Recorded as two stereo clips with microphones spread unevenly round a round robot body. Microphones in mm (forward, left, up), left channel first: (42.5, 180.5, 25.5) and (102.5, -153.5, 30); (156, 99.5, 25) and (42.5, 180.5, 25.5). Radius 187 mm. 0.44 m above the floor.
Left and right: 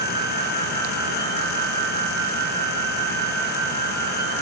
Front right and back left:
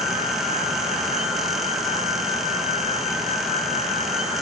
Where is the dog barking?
I don't hear a dog barking.